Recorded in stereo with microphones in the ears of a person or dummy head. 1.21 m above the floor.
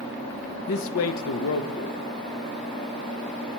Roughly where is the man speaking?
Left.